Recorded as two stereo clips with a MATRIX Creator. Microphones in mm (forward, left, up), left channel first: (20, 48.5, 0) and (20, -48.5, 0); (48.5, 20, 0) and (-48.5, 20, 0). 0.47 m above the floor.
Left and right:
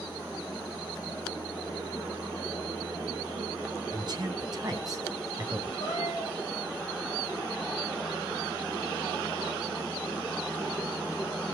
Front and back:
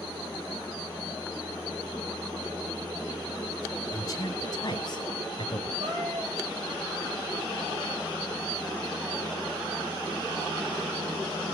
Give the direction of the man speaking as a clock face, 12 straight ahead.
2 o'clock.